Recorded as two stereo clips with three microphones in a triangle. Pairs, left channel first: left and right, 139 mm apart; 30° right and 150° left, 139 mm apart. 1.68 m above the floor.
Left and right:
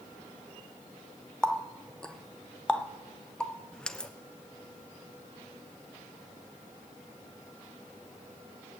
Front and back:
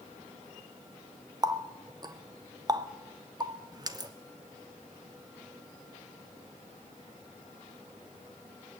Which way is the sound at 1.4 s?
165° left.